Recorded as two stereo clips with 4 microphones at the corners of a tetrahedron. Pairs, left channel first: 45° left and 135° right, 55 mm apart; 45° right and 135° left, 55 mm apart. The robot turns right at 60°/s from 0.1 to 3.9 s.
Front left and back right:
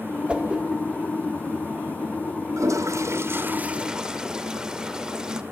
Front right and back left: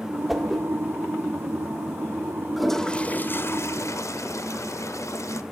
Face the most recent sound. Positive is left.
turn(degrees=-60)